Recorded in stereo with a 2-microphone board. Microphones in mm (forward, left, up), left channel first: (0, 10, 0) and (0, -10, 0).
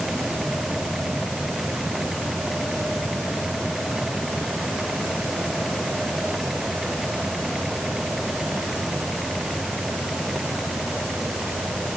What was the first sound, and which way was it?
Only background noise.